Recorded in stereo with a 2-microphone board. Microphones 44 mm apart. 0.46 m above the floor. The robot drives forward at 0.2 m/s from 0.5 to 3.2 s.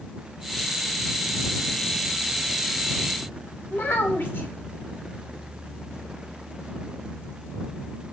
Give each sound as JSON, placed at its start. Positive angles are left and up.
{"t": 3.7, "sound": "a child speaking", "side_deg": 45, "distance_m": 0.6}